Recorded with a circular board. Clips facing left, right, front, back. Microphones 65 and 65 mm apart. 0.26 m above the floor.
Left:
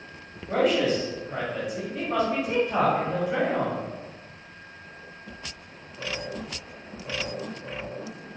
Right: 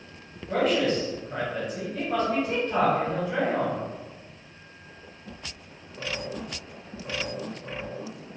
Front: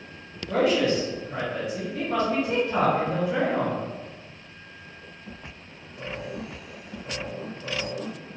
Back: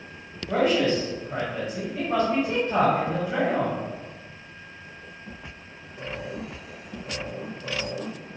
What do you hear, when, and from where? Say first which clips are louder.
0.5 s a man speaking: left 1 dB, even; 165° left, 1.6 m